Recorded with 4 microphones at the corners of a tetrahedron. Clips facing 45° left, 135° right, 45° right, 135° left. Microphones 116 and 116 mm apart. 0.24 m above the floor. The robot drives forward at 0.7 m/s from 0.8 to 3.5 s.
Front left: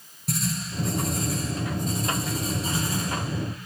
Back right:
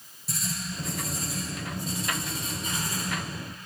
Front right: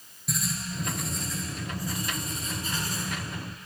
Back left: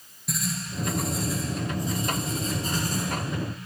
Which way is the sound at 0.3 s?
45° left.